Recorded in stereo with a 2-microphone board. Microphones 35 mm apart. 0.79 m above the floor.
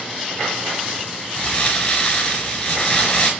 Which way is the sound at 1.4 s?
35° left (ahead or behind).